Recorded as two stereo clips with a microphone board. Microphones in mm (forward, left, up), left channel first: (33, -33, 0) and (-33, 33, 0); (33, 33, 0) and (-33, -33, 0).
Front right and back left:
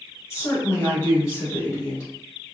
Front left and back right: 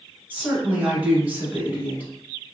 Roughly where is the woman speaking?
Right.